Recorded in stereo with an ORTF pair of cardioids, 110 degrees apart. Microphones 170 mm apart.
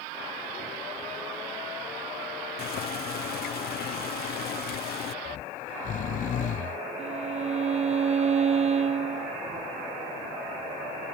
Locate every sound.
2.6 s boiling: 65° left
5.2 s snoring: 55° left
7.0 s a violin: 40° right